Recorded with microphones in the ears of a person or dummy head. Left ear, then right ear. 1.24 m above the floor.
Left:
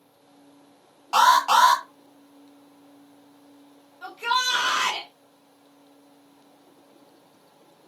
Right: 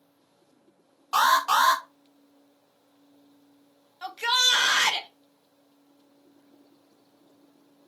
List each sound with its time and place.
1.1 s an alarm: 5° right (ahead or behind), 1.0 m
4.0 s a shout: 40° right (ahead or behind), 0.6 m